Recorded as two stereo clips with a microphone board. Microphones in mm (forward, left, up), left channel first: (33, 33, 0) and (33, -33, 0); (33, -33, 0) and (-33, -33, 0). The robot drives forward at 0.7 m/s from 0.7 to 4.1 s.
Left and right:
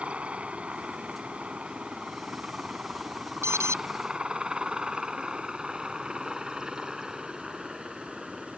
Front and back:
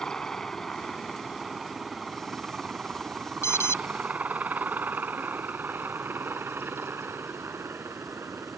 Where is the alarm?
45° right; by 3.8 s 50° right.